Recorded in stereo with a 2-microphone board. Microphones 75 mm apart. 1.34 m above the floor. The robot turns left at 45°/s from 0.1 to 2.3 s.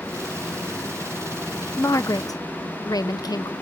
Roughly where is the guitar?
No guitar in this recording.